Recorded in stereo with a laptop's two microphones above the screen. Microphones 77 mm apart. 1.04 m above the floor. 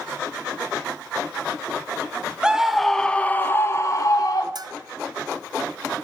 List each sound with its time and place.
2.4 s a scream: 10° right (ahead or behind), 1.2 m; by 4.5 s 55° left (ahead or behind), 1.5 m
4.5 s a bell: 60° right (ahead or behind), 0.5 m